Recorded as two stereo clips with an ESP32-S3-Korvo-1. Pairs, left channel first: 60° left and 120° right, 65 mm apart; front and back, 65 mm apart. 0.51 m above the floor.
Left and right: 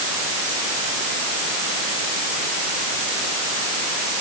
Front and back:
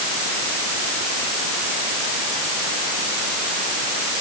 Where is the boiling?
No boiling in this recording.